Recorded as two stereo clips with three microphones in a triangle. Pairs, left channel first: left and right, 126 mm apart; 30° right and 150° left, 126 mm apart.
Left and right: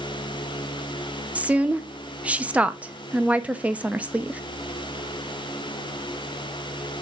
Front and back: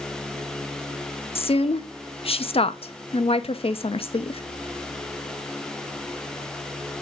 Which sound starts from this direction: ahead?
A woman speaking, at 1.4 s.